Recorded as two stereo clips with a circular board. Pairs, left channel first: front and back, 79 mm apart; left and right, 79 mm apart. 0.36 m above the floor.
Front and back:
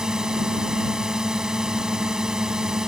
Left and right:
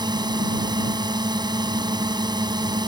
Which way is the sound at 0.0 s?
100° right.